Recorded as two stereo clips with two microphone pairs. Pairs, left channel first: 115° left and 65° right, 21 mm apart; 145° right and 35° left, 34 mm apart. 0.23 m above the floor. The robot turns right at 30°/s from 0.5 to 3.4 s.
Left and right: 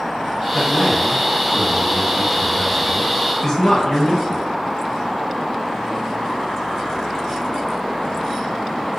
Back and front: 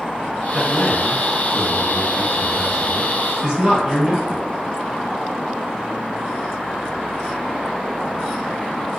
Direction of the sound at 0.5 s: 35° right.